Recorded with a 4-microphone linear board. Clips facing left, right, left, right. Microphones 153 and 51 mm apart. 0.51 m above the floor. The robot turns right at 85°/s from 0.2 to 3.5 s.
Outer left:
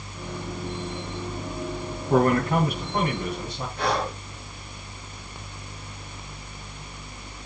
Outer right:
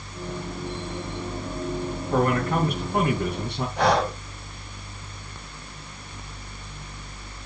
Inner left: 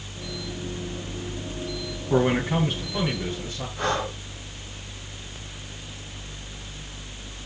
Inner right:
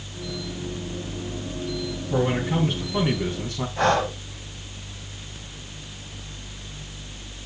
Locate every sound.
2.1 s a man speaking: 125° left, 4 m; by 3.7 s 115° right, 4 m
3.8 s breathing: 80° right, 2 m